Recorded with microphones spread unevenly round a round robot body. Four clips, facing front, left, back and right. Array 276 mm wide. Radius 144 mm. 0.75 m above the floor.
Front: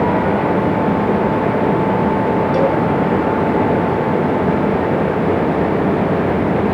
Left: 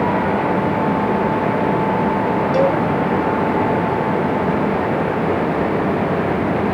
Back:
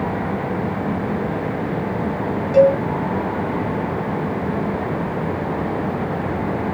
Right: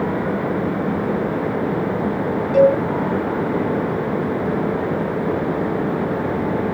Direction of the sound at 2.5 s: 105° left.